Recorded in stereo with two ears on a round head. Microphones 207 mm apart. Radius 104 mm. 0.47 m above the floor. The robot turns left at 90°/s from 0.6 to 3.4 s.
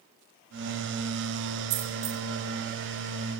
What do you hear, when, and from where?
1.7 s a dropped coin: 45° right (ahead or behind), 4.5 m; by 2.2 s 90° right, 4.5 m